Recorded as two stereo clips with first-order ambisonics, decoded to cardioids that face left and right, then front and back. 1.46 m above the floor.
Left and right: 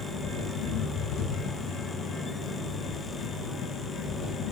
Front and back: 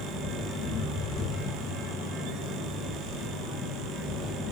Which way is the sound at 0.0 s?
60° left.